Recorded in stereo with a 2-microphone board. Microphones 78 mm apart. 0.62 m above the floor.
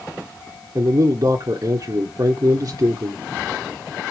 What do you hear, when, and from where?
0.8 s a man speaking: 50° right (ahead or behind), 1.4 m